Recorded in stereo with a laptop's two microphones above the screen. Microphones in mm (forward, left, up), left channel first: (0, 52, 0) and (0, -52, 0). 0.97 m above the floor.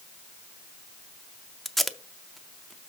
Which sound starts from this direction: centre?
Tape being pulled, at 1.6 s.